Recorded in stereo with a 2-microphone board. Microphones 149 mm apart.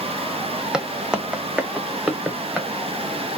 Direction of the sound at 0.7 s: 5° right (ahead or behind).